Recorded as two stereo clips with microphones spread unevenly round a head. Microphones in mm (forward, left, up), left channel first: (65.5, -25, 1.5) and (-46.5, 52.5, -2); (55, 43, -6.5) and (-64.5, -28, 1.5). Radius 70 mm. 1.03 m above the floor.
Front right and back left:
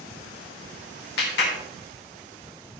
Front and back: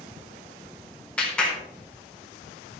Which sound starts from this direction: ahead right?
A clap, at 1.2 s.